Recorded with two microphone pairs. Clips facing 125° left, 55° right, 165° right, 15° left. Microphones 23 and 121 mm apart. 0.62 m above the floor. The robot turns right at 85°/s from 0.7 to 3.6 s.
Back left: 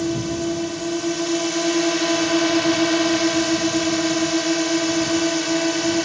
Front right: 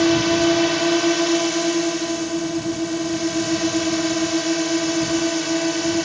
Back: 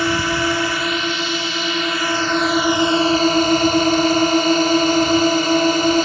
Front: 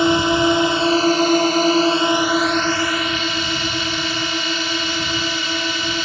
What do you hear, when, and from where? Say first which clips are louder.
0.0 s a drone: front right 7 dB, front 4 dB; 45° right; by 6.0 s 155° right